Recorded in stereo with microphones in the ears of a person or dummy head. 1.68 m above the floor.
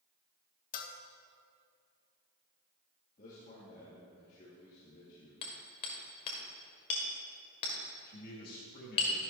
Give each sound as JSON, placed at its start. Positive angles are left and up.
{"t": 0.7, "sound": "a bell", "side_deg": 50, "distance_m": 0.9}
{"t": 3.2, "sound": "a man speaking", "side_deg": 45, "distance_m": 2.5}
{"t": 5.4, "sound": "hammering", "side_deg": 30, "distance_m": 1.7}
{"t": 8.1, "sound": "a man speaking", "side_deg": 45, "distance_m": 2.5}